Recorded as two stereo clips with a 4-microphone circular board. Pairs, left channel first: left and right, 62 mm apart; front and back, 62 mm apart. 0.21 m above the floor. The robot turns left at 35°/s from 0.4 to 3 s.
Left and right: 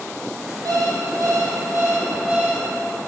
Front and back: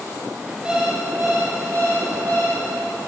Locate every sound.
0.7 s an alarm clock: 100° right, 4.5 m; by 2.6 s 170° right, 4.5 m